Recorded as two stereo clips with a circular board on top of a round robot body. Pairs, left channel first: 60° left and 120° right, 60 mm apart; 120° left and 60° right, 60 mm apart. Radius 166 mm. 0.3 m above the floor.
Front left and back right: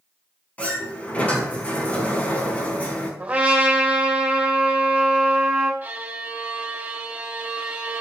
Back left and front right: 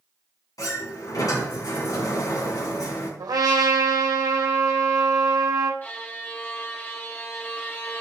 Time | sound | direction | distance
0.6 | a sliding door | 125° left | 4.5 m
3.2 | a trumpet | 50° right | 3 m
5.8 | a violin | 175° left | 3 m